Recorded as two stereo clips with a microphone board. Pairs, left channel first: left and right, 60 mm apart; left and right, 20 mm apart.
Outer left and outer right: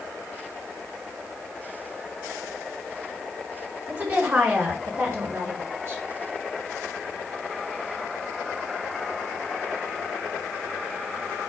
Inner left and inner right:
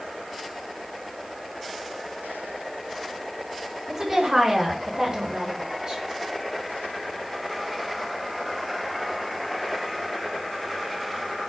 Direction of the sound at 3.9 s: 30° right (ahead or behind).